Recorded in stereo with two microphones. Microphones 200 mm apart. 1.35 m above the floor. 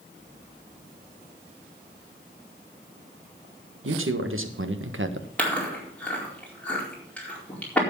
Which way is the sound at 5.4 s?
5° left (ahead or behind).